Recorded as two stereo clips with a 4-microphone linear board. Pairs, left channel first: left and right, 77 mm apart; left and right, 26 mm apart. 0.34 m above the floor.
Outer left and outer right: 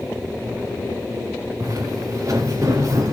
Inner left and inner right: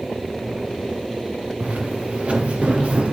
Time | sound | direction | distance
1.6 | footsteps | 45° right (ahead or behind) | 2 m